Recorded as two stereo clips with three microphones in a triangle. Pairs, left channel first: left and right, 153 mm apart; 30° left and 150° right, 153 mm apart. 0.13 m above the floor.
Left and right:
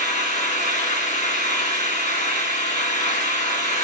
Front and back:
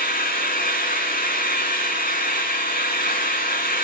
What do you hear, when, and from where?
0.0 s an engine running: 55° left, 3 m